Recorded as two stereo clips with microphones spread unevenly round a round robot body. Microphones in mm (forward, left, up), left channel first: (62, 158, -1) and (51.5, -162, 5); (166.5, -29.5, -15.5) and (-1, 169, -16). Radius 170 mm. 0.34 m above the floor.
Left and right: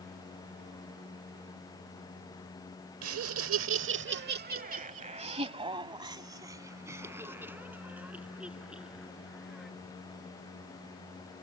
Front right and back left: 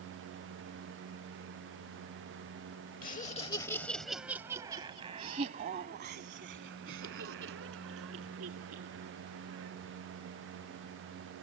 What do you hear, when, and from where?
3.0 s laughter: 95° right; by 9.7 s straight behind